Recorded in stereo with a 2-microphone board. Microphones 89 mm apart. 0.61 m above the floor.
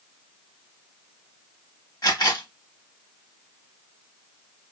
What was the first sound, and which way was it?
A camera shutter, 45° left (ahead or behind).